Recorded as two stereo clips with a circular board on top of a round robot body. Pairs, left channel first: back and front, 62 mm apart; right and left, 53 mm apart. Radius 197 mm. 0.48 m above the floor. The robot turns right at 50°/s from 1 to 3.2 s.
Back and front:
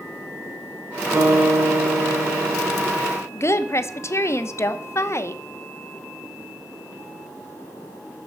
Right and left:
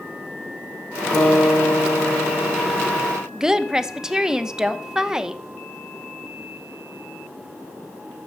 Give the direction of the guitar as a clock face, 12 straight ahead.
1 o'clock.